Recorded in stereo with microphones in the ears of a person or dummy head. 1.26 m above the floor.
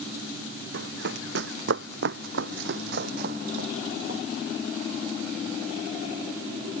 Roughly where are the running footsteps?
Right.